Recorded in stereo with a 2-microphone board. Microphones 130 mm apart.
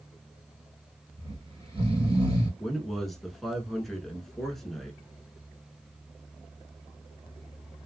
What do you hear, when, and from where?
1.2 s snoring: 45° right (ahead or behind), 2 m
2.6 s a man speaking: centre (ahead or behind), 1.1 m